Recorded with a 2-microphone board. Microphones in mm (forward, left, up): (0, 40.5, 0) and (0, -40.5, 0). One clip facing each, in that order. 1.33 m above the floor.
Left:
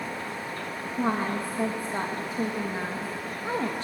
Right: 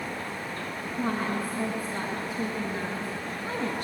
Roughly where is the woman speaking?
Left.